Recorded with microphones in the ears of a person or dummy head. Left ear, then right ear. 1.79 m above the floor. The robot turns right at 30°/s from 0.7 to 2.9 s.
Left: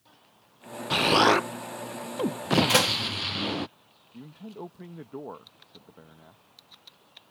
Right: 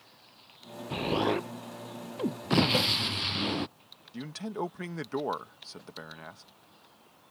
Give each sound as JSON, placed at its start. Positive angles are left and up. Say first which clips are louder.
{"t": 0.9, "sound": "an explosion", "louder": "left 9 dB", "azimuth_deg": 110}
{"t": 2.7, "sound": "a door slam", "louder": "left 6 dB", "side_deg": 50}
{"t": 4.1, "sound": "a man speaking", "louder": "right 7 dB", "side_deg": -60}